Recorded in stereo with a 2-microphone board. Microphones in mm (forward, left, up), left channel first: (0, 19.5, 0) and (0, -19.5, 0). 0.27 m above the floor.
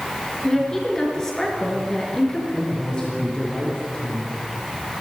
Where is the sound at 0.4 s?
15° left (ahead or behind), 4 m.